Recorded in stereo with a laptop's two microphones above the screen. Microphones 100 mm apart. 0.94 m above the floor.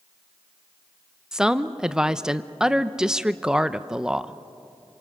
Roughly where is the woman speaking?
Centre.